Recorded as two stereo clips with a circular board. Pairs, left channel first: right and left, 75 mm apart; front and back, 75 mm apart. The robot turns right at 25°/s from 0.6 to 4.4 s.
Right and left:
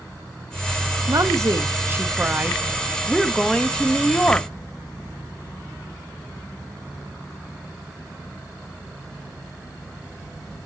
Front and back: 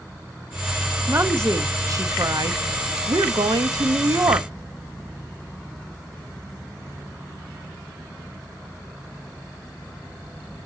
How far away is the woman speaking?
About 0.7 m.